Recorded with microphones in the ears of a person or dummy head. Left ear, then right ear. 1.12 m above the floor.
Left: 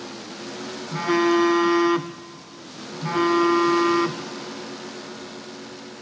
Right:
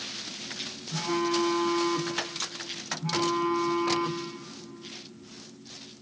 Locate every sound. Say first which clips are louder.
0.9 s a phone buzzing: left 8 dB; 55° left (ahead or behind), 0.7 m